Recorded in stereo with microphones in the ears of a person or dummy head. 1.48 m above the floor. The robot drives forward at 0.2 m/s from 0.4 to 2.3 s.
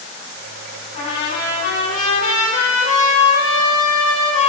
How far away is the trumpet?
About 4.5 m.